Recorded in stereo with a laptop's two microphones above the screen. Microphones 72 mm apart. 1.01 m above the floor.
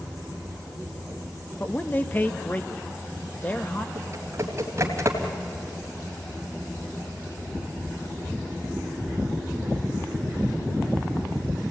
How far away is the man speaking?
About 1.3 m.